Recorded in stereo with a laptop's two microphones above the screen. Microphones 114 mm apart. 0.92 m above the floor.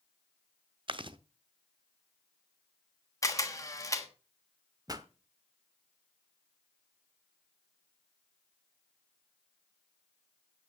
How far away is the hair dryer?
No hair dryer in this recording.